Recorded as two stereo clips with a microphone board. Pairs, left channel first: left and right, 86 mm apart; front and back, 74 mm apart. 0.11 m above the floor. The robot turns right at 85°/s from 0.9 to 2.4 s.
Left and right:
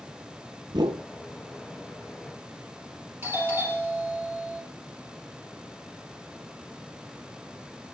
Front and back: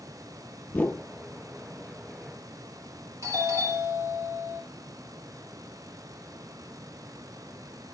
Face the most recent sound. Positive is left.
turn(degrees=-150)